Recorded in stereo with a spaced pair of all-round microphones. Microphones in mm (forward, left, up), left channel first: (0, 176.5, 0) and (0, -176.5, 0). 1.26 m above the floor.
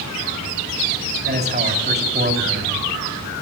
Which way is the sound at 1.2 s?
30° right (ahead or behind).